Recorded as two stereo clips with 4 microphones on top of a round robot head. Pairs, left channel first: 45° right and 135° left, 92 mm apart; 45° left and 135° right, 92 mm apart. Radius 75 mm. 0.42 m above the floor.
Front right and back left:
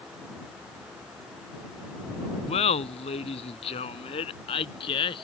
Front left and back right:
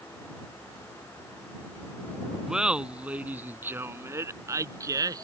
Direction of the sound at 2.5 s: 50° right.